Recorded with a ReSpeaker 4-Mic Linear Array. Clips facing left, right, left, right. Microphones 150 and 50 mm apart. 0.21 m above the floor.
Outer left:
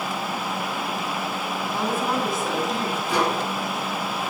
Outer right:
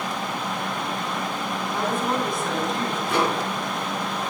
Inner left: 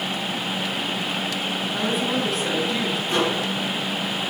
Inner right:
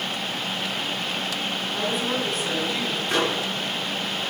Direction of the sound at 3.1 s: 60° right (ahead or behind).